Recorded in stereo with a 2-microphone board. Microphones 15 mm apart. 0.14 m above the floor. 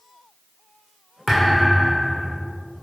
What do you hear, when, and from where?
1.3 s a thud: 15° left (ahead or behind), 2 m